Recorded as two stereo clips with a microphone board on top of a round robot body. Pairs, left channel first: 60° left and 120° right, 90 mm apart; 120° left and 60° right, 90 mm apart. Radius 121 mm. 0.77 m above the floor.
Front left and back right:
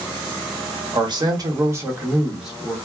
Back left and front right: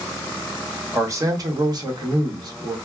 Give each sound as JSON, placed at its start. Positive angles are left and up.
{"t": 0.9, "sound": "a man speaking", "azimuth_deg": -110, "distance_m": 1.2}